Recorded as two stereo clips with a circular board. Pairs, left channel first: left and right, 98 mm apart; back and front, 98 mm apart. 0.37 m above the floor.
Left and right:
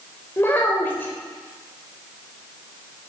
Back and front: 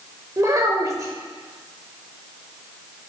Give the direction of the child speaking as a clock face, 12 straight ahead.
11 o'clock.